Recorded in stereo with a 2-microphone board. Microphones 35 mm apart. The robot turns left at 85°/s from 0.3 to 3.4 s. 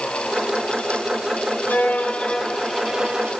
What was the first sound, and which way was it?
A violin, 85° left.